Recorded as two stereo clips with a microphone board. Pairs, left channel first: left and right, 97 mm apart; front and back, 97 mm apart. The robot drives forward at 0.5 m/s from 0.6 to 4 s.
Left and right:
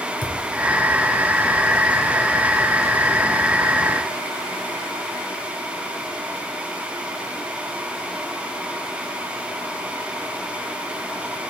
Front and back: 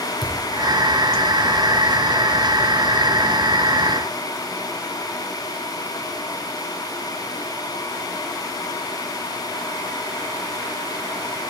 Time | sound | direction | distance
0.2 | a thud | 135° left | 3 m